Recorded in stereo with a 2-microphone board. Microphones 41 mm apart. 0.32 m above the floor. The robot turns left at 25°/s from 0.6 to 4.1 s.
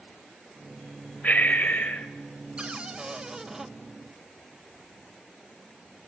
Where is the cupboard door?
30° right (ahead or behind), 0.5 m; by 3.7 s 15° right (ahead or behind), 0.5 m.